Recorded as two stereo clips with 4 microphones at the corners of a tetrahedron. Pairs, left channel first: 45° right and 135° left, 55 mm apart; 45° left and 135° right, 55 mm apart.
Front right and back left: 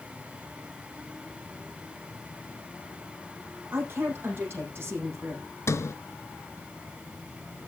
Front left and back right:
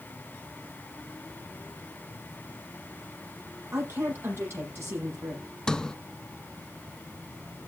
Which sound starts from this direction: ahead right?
A sliding door, at 5.7 s.